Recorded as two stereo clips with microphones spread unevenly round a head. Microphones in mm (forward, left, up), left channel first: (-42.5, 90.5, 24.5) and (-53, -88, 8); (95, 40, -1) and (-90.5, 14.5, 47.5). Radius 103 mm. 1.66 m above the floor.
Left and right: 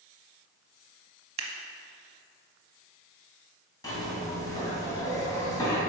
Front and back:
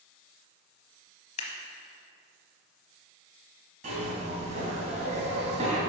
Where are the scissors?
55° right, 0.8 m.